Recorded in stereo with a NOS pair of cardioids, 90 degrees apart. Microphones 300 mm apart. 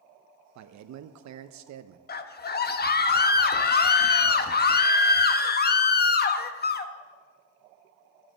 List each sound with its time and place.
0.6 s a man speaking: 65° right, 0.8 m
2.1 s a scream: 35° left, 1.2 m